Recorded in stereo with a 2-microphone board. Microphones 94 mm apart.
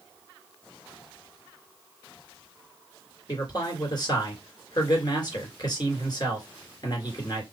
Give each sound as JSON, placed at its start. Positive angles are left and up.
{"t": 3.3, "sound": "a man speaking", "side_deg": 45, "distance_m": 2.0}